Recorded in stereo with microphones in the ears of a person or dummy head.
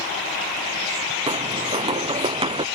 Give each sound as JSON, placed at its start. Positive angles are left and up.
{"t": 1.3, "sound": "footsteps", "side_deg": -25}